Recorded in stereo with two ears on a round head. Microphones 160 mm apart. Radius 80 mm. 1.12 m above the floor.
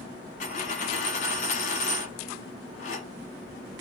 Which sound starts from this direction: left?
A dropped coin, at 0.4 s.